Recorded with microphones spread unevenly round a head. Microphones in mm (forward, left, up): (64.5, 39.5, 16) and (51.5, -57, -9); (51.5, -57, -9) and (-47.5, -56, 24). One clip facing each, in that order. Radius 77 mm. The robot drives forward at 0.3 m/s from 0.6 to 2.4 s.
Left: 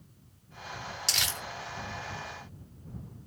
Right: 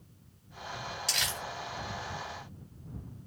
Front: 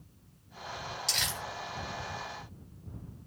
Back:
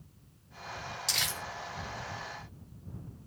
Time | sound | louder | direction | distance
1.1 | crumpling | left 1 dB, back 1 dB | 115° left | 1.4 m